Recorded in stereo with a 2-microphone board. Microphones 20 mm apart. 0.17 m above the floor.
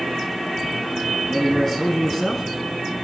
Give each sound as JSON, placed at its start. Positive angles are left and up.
{"t": 1.3, "sound": "a man speaking", "side_deg": 20, "distance_m": 1.4}